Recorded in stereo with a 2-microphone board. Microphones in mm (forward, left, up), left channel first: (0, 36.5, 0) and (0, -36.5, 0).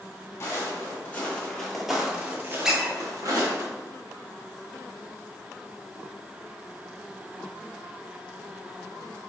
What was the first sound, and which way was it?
Footsteps, 35° left (ahead or behind).